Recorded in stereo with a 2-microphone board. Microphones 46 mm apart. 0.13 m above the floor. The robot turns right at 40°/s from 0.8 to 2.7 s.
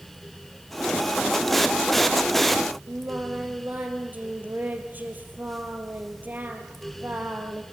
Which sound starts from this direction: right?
Singing, at 2.9 s.